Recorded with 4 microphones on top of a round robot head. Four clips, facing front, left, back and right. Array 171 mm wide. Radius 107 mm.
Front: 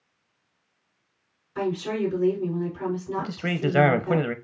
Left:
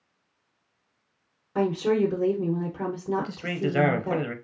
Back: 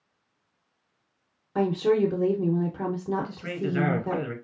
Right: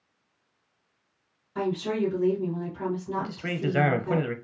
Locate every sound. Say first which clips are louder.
1.6 s a woman speaking: left 4 dB, back 4 dB; 145° left, 0.9 m
3.2 s a man speaking: left 1 dB, front 3 dB; 5° left, 0.7 m